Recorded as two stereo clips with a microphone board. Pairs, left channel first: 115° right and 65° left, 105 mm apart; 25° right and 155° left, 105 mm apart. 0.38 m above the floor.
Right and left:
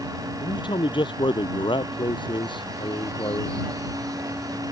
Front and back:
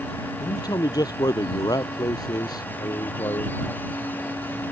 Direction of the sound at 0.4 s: 75° right.